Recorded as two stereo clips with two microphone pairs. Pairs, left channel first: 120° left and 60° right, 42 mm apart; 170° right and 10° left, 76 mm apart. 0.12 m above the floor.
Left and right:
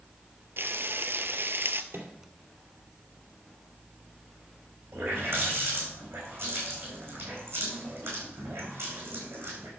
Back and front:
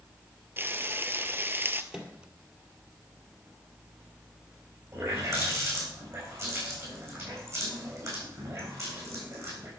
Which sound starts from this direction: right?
A microwave, at 1.9 s.